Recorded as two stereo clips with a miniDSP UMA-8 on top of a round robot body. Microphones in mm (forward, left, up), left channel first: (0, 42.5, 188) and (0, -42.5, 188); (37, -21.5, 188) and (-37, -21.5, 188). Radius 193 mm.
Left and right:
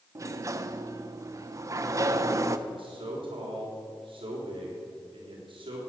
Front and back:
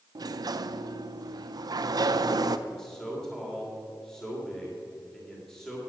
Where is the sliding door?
145° right, 0.5 m.